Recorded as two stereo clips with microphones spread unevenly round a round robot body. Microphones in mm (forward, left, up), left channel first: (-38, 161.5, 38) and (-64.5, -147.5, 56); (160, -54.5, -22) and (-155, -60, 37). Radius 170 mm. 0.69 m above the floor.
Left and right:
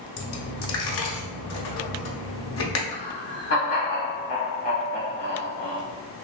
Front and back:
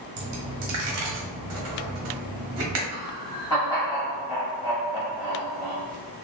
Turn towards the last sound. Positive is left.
turn(degrees=65)